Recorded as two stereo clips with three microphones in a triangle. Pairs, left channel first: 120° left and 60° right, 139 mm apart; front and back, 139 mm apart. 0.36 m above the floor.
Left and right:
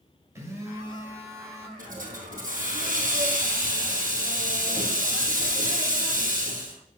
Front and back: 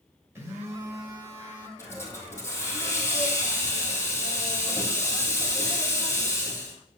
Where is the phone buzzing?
120° right, 1.7 m.